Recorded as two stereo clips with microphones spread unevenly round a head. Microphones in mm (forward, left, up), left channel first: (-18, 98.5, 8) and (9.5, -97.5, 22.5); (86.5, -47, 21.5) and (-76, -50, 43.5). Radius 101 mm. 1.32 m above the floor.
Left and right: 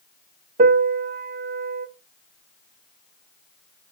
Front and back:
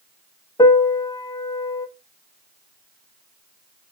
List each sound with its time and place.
0.6 s a piano: 65° right, 0.5 m